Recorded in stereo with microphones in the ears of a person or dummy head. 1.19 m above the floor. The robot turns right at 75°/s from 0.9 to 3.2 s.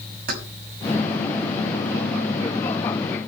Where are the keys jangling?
55° right (ahead or behind), 6.5 m.